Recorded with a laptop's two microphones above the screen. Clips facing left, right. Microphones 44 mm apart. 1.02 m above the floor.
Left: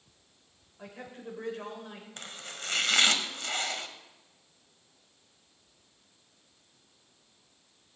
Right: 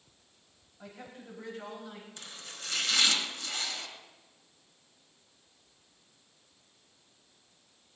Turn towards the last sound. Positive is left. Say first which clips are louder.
# left 4 dB
turn(degrees=50)  # may be behind; listen again after turning